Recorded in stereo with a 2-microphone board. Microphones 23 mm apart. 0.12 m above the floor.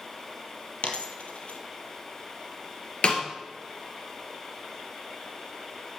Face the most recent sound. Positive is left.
turn(degrees=50)  # may be behind; listen again after turning